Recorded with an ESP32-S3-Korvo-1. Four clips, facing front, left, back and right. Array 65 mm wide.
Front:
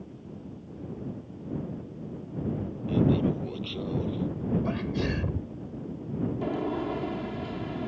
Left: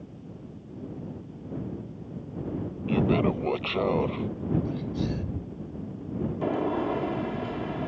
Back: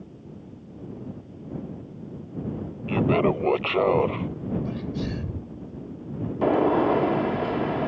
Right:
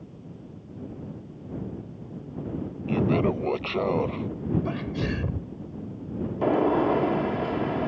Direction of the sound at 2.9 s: 175° right.